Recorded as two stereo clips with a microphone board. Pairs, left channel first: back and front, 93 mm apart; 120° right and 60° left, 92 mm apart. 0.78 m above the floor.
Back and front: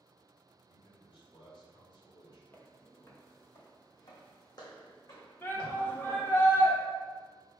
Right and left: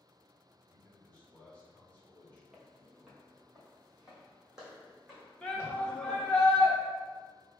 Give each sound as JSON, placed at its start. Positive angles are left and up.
{"t": 0.5, "sound": "a man speaking", "azimuth_deg": 170, "distance_m": 2.0}
{"t": 2.5, "sound": "footsteps", "azimuth_deg": 140, "distance_m": 0.9}
{"t": 5.4, "sound": "a shout", "azimuth_deg": 180, "distance_m": 0.8}